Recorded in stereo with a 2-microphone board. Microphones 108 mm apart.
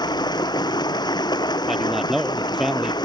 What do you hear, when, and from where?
0.0 s running water: 40° left (ahead or behind)
1.7 s a man speaking: 5° right (ahead or behind)